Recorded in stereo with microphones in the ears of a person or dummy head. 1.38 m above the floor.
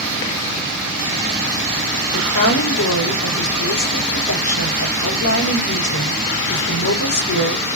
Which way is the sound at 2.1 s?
75° left (ahead or behind).